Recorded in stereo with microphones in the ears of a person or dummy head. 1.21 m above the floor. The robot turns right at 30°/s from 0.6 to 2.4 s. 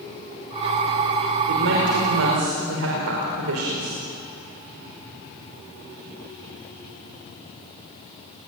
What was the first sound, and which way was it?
A woman speaking, 60° right (ahead or behind).